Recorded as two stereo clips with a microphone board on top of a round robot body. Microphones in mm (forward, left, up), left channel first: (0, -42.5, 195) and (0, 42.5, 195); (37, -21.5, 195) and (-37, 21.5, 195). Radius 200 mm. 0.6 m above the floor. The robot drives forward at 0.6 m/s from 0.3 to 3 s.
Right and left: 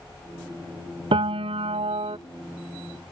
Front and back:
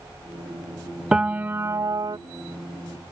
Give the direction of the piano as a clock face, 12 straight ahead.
10 o'clock.